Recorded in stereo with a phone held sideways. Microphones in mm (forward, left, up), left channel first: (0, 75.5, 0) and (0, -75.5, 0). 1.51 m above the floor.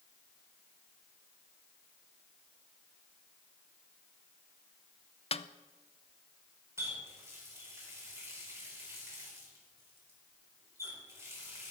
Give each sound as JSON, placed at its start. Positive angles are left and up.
{"t": 5.3, "sound": "a snare drum", "side_deg": 45, "distance_m": 0.5}
{"t": 6.8, "sound": "a running tap", "side_deg": -20, "distance_m": 4.5}